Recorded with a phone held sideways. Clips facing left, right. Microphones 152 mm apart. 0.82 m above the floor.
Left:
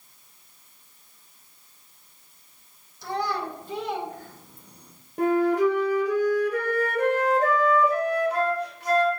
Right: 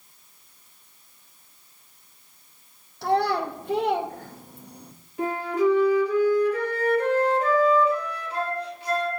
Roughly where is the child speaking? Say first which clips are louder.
Right 6 dB; right.